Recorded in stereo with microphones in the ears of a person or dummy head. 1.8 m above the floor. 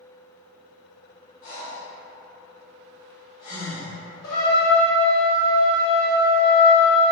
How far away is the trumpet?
About 0.9 m.